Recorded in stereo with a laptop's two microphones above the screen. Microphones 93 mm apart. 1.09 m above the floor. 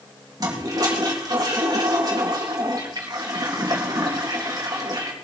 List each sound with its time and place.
0.4 s a toilet flushing: 40° right (ahead or behind), 2 m